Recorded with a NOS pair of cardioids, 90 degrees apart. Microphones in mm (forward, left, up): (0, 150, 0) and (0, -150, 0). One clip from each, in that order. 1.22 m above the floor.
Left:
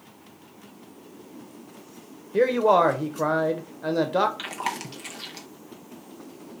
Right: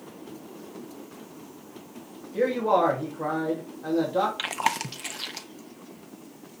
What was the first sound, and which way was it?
A man speaking, 50° left.